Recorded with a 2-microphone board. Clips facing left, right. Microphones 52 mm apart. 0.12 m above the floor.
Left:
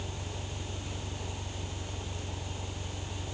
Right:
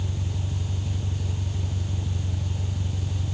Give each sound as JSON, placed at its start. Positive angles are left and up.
{"t": 0.0, "sound": "an engine running", "side_deg": -65}